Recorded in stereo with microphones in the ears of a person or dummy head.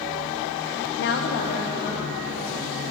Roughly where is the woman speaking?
Left.